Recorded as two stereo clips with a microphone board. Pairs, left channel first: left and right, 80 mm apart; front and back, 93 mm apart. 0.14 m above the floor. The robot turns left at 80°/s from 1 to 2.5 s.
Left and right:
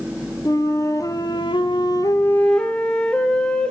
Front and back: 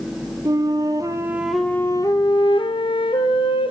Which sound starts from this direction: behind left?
A flute, at 0.5 s.